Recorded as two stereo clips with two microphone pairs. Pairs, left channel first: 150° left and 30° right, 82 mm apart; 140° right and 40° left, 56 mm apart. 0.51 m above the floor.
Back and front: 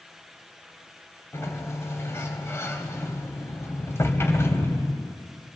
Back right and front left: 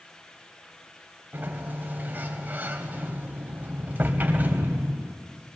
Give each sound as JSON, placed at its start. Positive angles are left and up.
{"t": 1.3, "sound": "a sliding door", "azimuth_deg": 95, "distance_m": 2.0}